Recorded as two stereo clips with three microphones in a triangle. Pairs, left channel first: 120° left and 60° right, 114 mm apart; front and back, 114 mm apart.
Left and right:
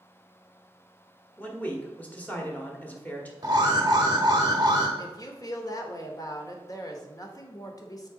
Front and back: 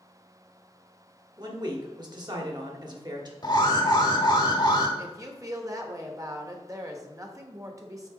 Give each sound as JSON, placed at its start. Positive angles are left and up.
{"t": 1.4, "sound": "a man speaking", "azimuth_deg": -170, "distance_m": 1.3}
{"t": 3.4, "sound": "an alarm", "azimuth_deg": -25, "distance_m": 1.2}
{"t": 5.0, "sound": "a woman speaking", "azimuth_deg": 145, "distance_m": 1.0}